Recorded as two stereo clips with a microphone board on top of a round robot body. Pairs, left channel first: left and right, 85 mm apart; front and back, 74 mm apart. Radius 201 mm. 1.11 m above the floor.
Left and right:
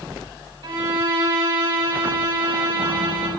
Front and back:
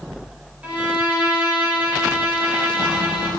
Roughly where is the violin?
Right.